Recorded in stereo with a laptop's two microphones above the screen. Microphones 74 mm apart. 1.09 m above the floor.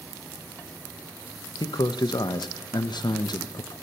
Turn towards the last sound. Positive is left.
turn(degrees=70)  # may be behind; listen again after turning